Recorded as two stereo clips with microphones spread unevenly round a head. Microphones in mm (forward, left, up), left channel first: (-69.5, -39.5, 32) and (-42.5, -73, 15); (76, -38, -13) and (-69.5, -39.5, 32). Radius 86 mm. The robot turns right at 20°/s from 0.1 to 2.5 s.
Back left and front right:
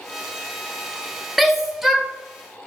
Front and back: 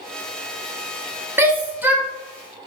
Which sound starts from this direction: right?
A shout, at 1.4 s.